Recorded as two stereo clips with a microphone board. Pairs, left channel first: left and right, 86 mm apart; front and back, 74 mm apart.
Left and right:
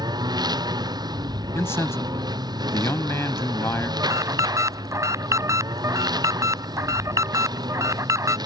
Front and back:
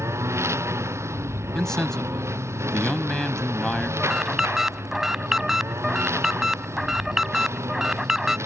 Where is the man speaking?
75° left.